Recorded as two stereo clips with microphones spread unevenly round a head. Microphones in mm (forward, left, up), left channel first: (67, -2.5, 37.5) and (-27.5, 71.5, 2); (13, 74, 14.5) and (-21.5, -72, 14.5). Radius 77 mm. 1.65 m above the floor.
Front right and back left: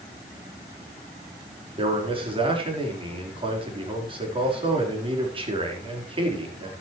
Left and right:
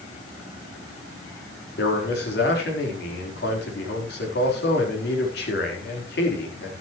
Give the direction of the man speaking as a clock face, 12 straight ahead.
9 o'clock.